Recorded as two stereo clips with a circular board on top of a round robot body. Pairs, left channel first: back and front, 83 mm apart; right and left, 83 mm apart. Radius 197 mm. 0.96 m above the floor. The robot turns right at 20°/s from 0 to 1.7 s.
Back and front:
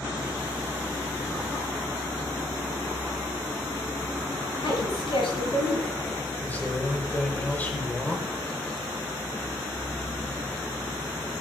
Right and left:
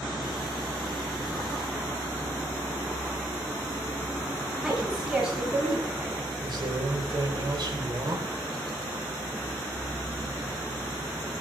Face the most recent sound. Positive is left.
turn(degrees=110)